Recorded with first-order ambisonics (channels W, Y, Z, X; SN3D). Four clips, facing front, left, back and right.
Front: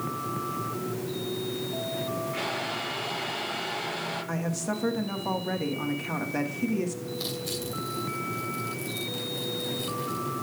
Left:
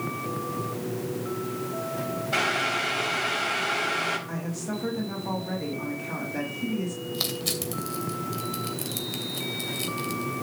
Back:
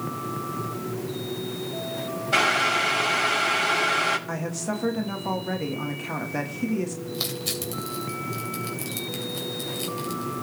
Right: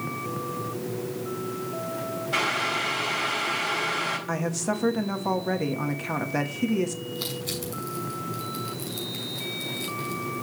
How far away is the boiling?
About 3.5 m.